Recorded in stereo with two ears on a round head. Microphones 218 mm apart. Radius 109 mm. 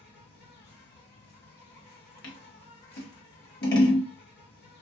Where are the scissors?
45° left (ahead or behind), 1.2 m.